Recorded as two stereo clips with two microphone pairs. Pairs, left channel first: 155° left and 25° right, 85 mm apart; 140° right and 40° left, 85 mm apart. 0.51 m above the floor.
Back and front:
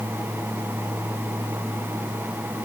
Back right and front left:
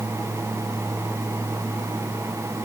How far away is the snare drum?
I don't hear a snare drum.